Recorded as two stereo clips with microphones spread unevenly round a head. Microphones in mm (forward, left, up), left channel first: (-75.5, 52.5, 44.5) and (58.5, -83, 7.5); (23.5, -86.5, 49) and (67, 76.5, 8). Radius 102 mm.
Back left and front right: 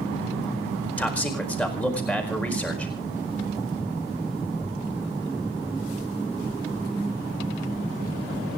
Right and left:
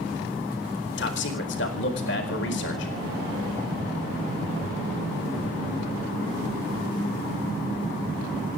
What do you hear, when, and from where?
1.0 s a man speaking: 140° right, 4.5 m